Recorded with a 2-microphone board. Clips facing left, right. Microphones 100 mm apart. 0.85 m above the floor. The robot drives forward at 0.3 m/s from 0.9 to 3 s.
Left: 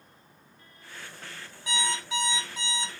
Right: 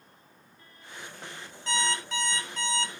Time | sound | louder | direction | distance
1.7 | an alarm clock | right 1 dB | 10° left (ahead or behind) | 1.0 m